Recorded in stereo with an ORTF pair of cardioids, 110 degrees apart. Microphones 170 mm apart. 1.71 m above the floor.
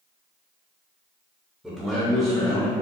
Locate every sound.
1.6 s a man speaking: straight ahead, 1.1 m; by 2.7 s 40° left, 0.8 m